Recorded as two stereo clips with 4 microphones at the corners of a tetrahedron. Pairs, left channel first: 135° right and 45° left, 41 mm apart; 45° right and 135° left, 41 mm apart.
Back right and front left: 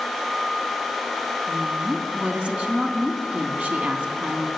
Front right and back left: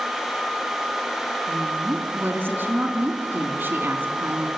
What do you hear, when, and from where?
1.5 s a woman speaking: 100° left, 4 m